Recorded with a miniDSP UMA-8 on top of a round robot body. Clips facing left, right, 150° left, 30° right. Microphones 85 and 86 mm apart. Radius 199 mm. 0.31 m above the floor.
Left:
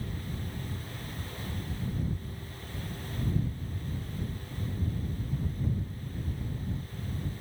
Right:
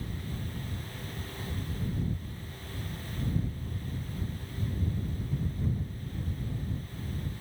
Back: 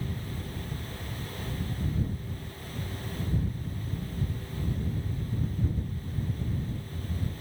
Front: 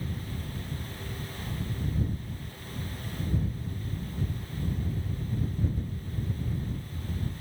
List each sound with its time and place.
Only background noise.